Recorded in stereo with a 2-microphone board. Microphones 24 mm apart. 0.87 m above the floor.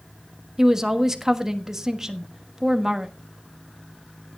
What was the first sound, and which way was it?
A woman speaking, 20° right (ahead or behind).